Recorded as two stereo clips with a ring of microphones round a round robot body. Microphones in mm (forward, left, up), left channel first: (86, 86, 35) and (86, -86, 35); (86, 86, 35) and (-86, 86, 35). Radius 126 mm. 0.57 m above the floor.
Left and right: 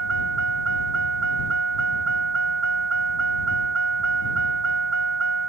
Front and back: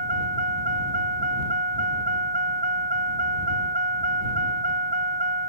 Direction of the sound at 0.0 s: 120° right.